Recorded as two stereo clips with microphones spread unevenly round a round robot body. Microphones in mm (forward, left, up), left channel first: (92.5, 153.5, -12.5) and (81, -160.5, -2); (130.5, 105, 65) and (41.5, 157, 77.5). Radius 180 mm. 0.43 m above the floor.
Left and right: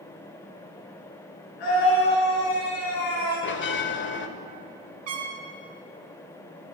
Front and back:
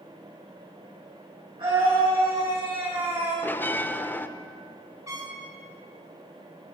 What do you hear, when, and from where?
1.6 s a scream: 110° left, 6 m; by 3.3 s 105° left, 5.5 m
3.4 s a bell: 40° left, 1.0 m
5.1 s a trumpet: 140° right, 1.3 m